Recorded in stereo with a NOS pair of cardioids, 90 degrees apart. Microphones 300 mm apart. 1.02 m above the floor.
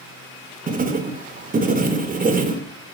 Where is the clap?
No clap in this recording.